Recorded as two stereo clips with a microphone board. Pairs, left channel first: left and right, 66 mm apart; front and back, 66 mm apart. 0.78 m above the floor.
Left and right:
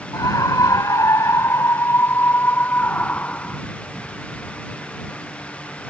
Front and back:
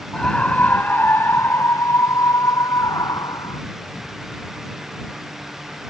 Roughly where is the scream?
Left.